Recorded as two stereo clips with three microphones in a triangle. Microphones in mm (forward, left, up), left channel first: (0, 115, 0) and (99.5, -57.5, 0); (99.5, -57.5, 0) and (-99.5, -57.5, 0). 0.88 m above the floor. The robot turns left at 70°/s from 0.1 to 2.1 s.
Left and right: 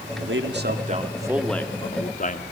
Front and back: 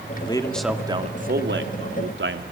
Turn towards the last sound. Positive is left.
turn(degrees=165)